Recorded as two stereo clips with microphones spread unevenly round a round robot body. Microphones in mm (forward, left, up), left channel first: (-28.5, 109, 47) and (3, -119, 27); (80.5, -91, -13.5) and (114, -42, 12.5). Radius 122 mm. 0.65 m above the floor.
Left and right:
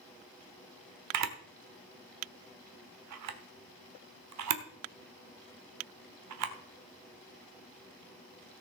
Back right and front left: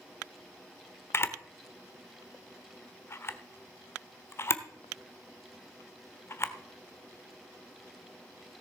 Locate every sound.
1.1 s a camera shutter: 80° right, 1.1 m